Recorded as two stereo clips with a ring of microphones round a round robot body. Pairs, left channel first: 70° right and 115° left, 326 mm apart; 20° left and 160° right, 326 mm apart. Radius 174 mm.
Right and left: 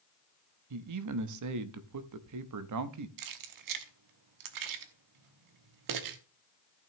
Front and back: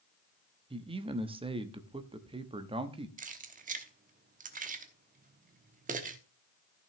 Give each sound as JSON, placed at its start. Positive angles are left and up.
{"t": 0.7, "sound": "a man speaking", "azimuth_deg": 130, "distance_m": 1.0}
{"t": 3.2, "sound": "keys jangling", "azimuth_deg": 135, "distance_m": 1.0}